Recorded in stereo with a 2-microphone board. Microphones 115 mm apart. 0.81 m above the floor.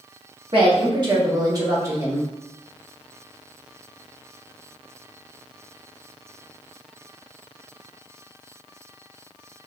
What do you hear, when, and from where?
0.5 s a woman speaking: 55° right (ahead or behind), 1.3 m; by 2.3 s 20° right (ahead or behind), 2 m